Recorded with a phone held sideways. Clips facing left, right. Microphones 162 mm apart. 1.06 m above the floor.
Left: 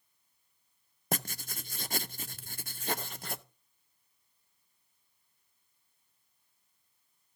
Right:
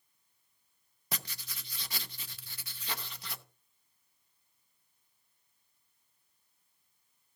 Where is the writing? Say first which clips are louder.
Left 8 dB; 50° left (ahead or behind), 0.6 m.